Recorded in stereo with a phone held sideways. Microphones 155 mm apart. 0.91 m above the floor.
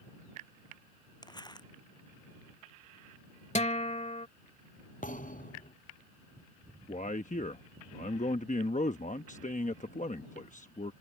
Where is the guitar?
50° left (ahead or behind).